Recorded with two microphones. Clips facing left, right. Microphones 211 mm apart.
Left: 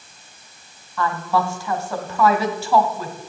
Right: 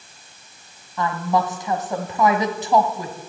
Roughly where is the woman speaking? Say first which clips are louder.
Even; centre.